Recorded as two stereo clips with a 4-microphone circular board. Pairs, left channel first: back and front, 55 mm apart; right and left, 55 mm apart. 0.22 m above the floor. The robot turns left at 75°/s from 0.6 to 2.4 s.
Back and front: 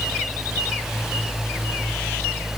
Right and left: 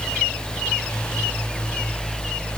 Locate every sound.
Only background noise.